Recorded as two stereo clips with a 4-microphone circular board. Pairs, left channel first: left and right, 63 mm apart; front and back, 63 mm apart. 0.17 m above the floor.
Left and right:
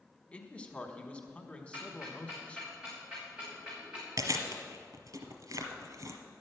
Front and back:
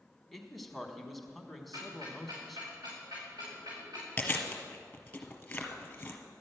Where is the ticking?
170° right, 5 m.